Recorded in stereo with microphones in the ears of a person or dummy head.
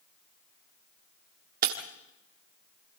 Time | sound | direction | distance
1.6 | breaking glass | 50° right (ahead or behind) | 1.6 m